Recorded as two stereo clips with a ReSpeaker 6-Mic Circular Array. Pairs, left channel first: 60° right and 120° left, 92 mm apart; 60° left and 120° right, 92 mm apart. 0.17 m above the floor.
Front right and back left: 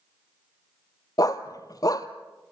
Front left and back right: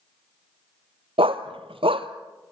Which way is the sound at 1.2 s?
110° right.